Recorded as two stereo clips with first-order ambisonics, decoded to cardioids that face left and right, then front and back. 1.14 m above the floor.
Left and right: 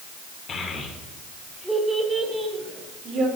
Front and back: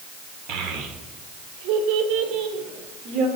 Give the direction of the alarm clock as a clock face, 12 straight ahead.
No alarm clock in this recording.